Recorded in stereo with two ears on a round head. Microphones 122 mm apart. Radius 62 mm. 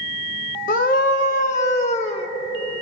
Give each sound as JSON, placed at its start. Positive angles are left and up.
{"t": 0.7, "sound": "a scream", "side_deg": 65, "distance_m": 1.4}